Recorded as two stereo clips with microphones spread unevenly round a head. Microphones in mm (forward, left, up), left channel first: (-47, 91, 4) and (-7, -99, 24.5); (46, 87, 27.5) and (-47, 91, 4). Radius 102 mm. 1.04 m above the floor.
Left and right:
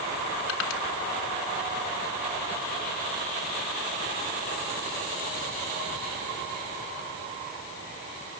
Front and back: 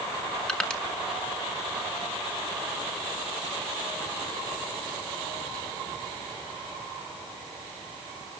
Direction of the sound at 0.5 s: 80° left.